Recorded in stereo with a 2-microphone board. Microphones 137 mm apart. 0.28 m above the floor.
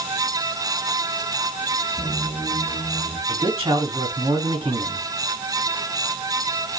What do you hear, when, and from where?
2.0 s a squeak: centre (ahead or behind), 3 m
3.3 s a man speaking: 25° right (ahead or behind), 1.3 m